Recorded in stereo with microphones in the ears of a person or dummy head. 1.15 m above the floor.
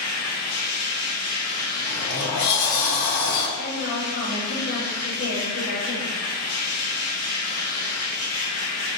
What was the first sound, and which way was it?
A machine running, 70° left (ahead or behind).